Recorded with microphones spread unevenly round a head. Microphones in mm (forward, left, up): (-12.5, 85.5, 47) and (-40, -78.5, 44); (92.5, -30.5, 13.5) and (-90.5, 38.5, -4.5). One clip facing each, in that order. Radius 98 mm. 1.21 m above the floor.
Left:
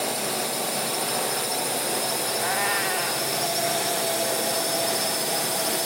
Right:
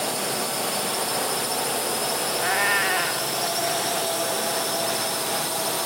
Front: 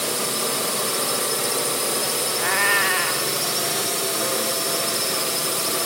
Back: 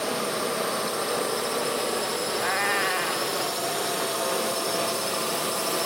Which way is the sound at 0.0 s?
Straight ahead.